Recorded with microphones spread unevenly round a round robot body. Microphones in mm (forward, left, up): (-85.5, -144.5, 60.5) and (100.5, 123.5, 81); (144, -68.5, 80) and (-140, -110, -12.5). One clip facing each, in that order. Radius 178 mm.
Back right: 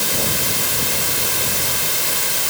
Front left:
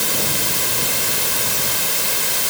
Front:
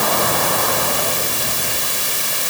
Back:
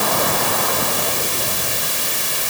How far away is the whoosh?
No whoosh in this recording.